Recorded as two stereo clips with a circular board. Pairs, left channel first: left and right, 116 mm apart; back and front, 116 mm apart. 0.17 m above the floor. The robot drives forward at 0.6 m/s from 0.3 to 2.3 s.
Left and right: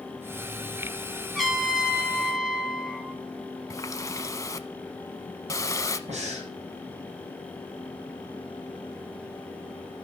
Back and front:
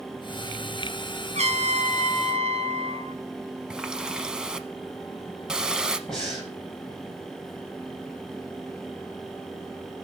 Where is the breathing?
90° right, 7.5 m.